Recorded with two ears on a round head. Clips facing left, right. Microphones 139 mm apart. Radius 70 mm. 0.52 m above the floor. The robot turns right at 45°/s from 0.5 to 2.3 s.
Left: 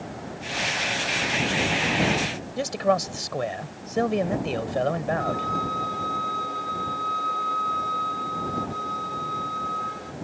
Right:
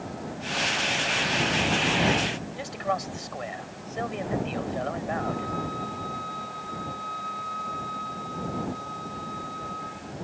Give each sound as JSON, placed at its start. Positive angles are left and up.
{"t": 2.6, "sound": "a man speaking", "side_deg": 55}
{"t": 5.2, "sound": "a violin", "side_deg": 65}